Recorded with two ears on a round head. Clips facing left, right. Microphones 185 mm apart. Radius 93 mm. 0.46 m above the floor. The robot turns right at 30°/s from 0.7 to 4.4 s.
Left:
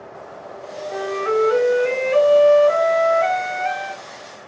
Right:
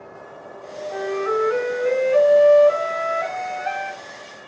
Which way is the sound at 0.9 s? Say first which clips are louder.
Left 2 dB; 45° left.